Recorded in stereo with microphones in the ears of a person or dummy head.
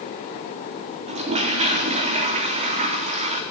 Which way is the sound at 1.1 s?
25° right (ahead or behind).